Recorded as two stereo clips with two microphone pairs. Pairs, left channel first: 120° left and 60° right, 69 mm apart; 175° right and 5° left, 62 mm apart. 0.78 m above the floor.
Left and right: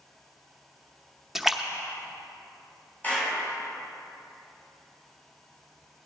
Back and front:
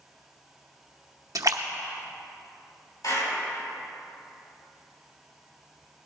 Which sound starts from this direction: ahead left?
A splash, at 1.4 s.